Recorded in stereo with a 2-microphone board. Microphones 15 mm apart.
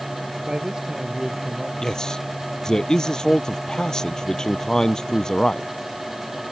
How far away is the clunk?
I don't hear a clunk.